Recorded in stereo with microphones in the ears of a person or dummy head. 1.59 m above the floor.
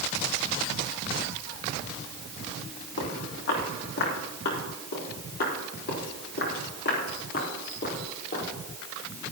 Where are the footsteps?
70° left (ahead or behind), 4.5 m; by 8.5 s 45° left (ahead or behind), 5 m.